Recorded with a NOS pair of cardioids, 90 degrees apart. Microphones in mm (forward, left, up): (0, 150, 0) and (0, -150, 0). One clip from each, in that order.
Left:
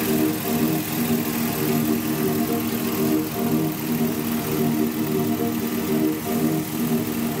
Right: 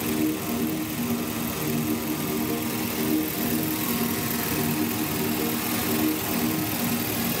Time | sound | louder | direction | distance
0.0 | a machine running | left 4 dB | 40° left | 1.7 m